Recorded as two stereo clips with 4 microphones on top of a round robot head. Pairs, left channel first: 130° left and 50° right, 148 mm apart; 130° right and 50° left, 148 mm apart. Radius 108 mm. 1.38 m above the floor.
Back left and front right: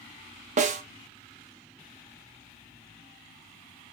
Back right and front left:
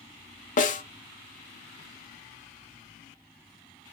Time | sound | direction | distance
0.6 | a snare drum | 95° right | 0.7 m